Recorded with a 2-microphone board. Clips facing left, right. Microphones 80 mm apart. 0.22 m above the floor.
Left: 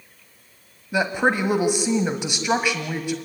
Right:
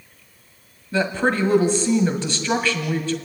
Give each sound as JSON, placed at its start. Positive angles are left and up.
{"t": 0.9, "sound": "a woman speaking", "side_deg": 15, "distance_m": 1.2}